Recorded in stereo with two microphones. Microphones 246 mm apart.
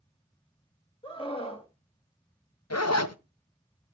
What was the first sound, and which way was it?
A scream, 20° left (ahead or behind).